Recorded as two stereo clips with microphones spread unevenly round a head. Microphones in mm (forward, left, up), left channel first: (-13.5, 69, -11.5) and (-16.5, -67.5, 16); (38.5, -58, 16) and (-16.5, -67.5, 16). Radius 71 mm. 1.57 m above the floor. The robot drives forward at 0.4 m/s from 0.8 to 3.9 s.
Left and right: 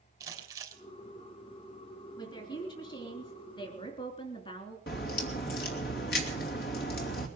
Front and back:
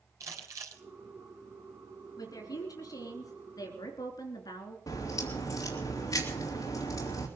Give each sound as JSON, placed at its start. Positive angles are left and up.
{"t": 0.2, "sound": "crumpling", "azimuth_deg": -155, "distance_m": 3.5}
{"t": 2.2, "sound": "a woman speaking", "azimuth_deg": 25, "distance_m": 4.0}
{"t": 4.9, "sound": "a crack", "azimuth_deg": 65, "distance_m": 2.5}